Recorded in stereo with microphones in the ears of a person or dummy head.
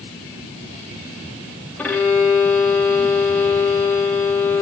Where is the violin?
5° left (ahead or behind), 0.7 m.